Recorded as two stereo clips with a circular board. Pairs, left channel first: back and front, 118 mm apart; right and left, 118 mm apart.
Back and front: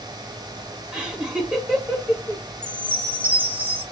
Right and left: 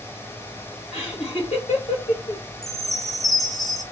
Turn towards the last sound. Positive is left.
turn(degrees=-15)